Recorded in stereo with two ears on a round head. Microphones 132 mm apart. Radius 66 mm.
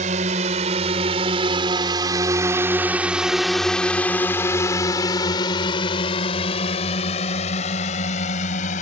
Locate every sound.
0.0 s a drone: 55° right (ahead or behind); by 8.8 s 55° left (ahead or behind)